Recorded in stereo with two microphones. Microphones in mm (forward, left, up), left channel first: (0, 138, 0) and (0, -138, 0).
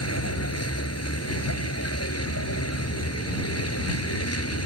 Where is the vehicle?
55° left (ahead or behind).